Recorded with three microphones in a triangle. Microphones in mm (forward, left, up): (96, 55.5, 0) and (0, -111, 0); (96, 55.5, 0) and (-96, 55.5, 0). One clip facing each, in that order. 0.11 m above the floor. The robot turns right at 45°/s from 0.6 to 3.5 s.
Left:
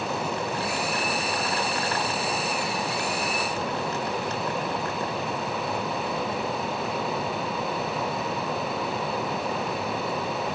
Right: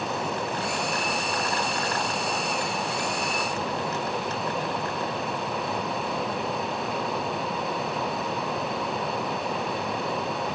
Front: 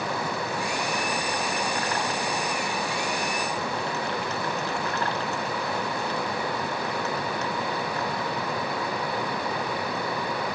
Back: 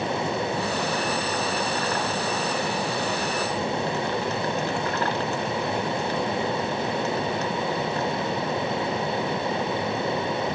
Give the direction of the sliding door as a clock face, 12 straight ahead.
No sliding door in this recording.